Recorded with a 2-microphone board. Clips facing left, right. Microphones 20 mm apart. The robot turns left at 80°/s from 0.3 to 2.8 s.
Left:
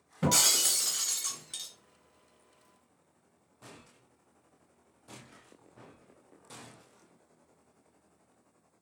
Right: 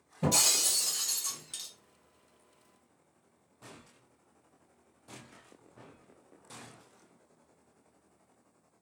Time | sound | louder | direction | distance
0.2 | breaking glass | left 1 dB | 105° left | 1.5 m